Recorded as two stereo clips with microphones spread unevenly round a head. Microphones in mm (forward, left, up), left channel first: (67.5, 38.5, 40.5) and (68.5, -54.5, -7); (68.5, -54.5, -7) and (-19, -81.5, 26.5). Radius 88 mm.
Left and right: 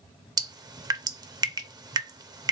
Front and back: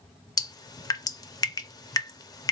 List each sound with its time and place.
0.4 s dripping: 35° right, 0.7 m